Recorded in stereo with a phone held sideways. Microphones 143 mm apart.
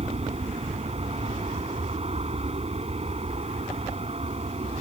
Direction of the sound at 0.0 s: 45° right (ahead or behind).